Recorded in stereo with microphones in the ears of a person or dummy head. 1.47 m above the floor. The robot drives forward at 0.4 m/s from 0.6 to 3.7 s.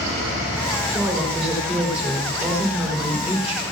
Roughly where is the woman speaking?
Centre.